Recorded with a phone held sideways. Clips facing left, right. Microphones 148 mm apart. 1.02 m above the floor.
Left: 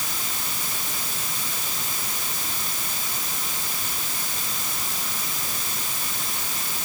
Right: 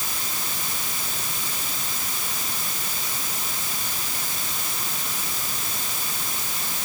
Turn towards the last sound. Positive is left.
No sound to turn to.